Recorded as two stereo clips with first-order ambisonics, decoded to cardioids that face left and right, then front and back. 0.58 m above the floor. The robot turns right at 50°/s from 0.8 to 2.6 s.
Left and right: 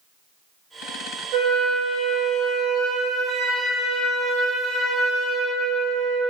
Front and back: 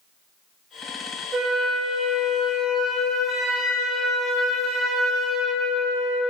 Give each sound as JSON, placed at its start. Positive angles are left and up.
{"t": 1.3, "sound": "a flute", "azimuth_deg": -115, "distance_m": 2.5}